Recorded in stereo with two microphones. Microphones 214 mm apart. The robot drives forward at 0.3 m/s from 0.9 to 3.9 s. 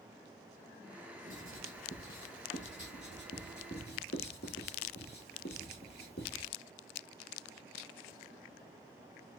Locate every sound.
1.3 s writing: 70° left (ahead or behind), 1.3 m; by 6.5 s 50° left (ahead or behind), 1.7 m